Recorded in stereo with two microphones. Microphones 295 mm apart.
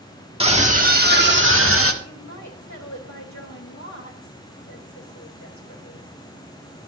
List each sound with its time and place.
0.4 s a scream: 20° right (ahead or behind), 1.7 m; by 1.9 s 55° right (ahead or behind), 2.0 m
2.0 s a woman speaking: 80° left, 2.5 m